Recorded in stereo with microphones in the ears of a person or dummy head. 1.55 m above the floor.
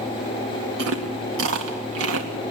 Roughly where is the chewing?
Right.